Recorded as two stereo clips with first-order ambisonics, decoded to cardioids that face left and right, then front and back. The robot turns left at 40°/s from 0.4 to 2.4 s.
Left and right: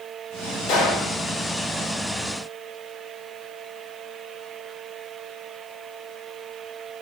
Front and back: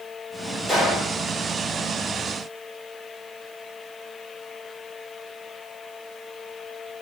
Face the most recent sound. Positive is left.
turn(degrees=40)